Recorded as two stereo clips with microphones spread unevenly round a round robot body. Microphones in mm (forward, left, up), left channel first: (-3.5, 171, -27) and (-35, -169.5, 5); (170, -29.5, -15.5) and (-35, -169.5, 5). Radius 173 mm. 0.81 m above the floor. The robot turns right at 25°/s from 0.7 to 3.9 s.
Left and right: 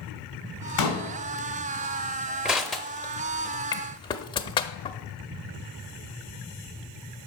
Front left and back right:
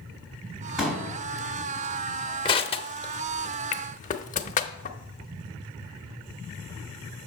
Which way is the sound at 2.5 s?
20° right.